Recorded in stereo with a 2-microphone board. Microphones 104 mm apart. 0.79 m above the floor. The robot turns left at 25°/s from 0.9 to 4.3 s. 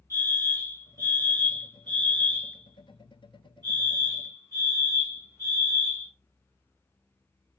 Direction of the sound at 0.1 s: 45° right.